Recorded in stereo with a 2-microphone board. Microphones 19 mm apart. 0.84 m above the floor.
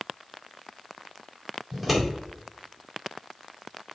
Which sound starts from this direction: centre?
Scissors, at 1.7 s.